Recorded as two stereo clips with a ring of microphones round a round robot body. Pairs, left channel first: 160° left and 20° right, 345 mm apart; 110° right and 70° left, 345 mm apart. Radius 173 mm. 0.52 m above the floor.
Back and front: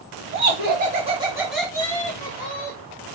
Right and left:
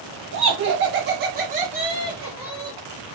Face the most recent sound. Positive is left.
turn(degrees=160)